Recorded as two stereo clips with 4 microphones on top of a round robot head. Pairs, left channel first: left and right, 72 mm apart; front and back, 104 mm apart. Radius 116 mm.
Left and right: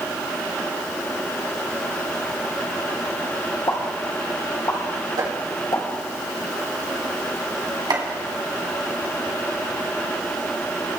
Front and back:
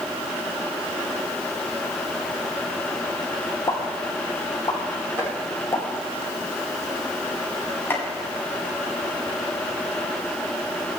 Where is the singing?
I don't hear singing.